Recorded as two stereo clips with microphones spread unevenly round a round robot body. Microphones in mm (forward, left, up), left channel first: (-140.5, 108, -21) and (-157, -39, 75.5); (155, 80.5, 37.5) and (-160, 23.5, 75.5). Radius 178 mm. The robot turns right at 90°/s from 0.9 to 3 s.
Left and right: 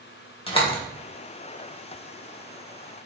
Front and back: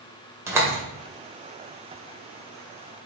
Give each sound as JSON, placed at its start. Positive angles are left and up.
{"t": 0.5, "sound": "a door slam", "azimuth_deg": 105, "distance_m": 2.0}